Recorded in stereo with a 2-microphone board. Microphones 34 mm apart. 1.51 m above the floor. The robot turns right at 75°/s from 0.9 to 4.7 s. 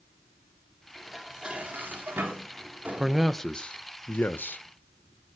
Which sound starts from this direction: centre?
Dishes clattering, at 0.9 s.